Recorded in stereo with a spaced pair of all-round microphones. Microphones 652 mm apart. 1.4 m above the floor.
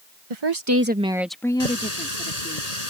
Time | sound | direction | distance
0.3 | a woman speaking | 50° right (ahead or behind) | ?
1.6 | a running tap | 70° left (ahead or behind) | ?